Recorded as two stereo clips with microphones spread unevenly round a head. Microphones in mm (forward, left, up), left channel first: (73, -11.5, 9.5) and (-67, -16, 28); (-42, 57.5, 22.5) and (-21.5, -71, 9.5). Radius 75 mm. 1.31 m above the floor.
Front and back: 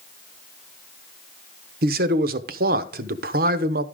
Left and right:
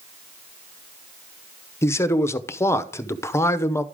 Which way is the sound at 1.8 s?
170° left.